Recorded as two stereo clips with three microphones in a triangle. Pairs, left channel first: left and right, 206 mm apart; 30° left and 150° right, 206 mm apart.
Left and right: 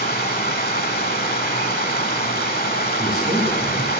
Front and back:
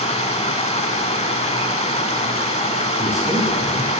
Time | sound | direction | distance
0.0 | running water | 75° left | 0.8 m
3.0 | a man speaking | 70° left | 1.7 m